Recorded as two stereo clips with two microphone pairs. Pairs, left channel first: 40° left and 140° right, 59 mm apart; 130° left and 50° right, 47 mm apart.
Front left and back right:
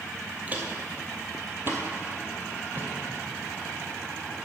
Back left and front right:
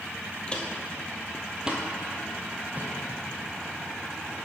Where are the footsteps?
175° left, 1.3 m; by 3.8 s 90° right, 3 m.